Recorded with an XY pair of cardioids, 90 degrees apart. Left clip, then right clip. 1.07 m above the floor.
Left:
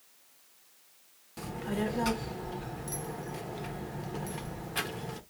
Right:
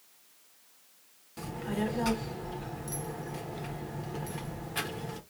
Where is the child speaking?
10° left, 1.0 m.